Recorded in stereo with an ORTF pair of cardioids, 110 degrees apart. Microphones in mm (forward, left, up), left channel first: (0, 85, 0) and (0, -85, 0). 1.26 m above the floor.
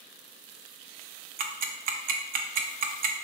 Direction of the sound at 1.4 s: 60° right.